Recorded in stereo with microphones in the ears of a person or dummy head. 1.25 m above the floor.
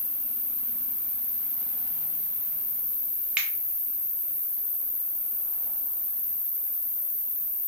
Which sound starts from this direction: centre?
A finger snap, at 3.4 s.